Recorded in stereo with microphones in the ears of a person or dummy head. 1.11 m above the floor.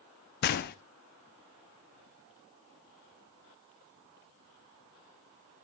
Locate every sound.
0.4 s a gunshot: 50° left (ahead or behind), 1.0 m